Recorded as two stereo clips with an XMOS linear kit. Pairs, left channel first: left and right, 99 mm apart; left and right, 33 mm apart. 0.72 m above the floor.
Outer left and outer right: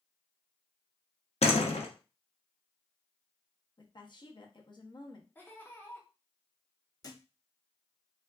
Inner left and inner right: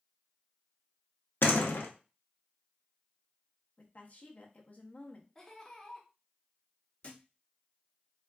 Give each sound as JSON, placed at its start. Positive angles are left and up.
{"t": 1.4, "sound": "a door slam", "side_deg": 80, "distance_m": 0.6}
{"t": 3.8, "sound": "a woman speaking", "side_deg": 45, "distance_m": 0.6}
{"t": 5.3, "sound": "laughter", "side_deg": 20, "distance_m": 0.8}
{"t": 7.0, "sound": "a thud", "side_deg": 35, "distance_m": 0.5}